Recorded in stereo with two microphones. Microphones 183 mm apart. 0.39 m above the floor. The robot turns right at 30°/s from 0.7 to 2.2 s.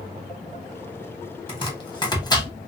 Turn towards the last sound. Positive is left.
turn(degrees=20)  # may be behind; listen again after turning